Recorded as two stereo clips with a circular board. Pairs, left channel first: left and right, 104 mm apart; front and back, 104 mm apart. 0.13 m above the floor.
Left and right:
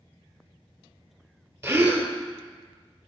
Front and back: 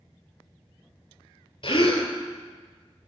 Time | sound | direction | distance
1.6 | a gasp | 30° right | 0.8 m